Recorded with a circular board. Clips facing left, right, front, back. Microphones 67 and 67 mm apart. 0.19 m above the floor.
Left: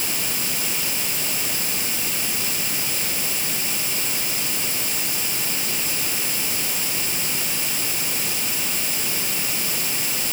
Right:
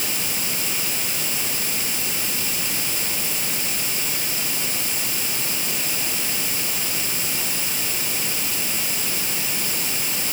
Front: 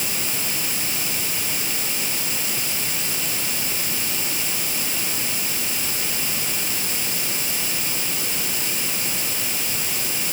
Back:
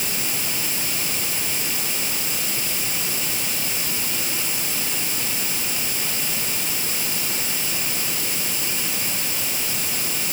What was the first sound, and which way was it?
Only background noise.